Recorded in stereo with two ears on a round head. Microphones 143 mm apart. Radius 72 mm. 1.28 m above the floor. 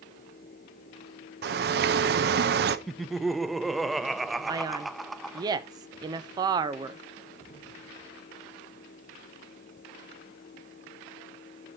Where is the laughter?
Centre (ahead or behind), 0.5 m.